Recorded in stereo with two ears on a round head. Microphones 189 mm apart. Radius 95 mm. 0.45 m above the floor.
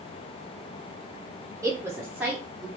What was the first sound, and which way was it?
A woman speaking, 15° right (ahead or behind).